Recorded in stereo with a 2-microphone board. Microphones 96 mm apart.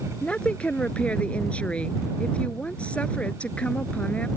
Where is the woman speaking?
15° left (ahead or behind).